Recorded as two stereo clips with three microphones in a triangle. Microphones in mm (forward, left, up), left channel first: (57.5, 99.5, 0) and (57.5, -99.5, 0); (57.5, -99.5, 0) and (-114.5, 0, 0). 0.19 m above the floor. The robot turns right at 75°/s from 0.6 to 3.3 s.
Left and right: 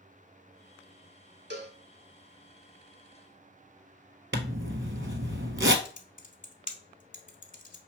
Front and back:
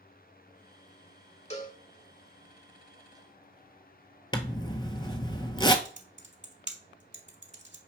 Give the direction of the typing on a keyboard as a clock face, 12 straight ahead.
8 o'clock.